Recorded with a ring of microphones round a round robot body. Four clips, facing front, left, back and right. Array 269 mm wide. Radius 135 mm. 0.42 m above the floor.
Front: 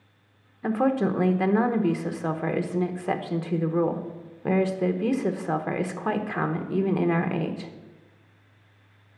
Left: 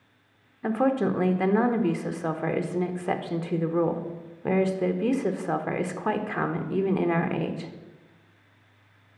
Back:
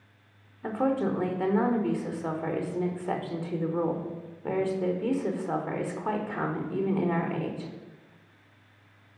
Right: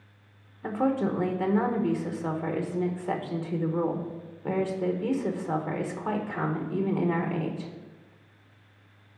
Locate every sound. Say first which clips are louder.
0.6 s a woman speaking: left 3 dB, front 3 dB; 40° left, 0.9 m